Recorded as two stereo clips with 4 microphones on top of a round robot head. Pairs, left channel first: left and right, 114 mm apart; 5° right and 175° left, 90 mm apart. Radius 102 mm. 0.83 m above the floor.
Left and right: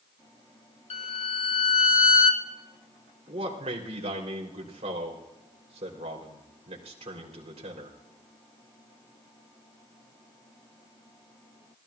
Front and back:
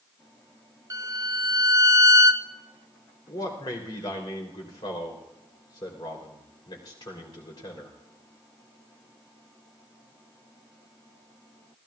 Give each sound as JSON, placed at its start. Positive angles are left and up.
{"t": 0.9, "sound": "a violin", "azimuth_deg": 120, "distance_m": 1.1}
{"t": 3.3, "sound": "a man speaking", "azimuth_deg": -50, "distance_m": 3.5}